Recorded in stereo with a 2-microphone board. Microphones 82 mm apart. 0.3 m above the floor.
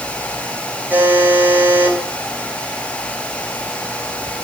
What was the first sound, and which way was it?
A buzzer, 20° right (ahead or behind).